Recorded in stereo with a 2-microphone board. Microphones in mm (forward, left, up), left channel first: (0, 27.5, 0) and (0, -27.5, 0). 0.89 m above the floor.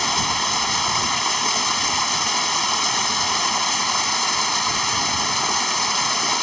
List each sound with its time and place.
0.0 s running water: centre (ahead or behind)